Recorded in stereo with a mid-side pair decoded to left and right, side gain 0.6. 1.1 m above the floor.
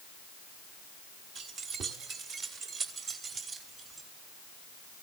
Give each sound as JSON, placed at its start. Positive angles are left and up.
{"t": 1.4, "sound": "keys jangling", "azimuth_deg": -60, "distance_m": 2.5}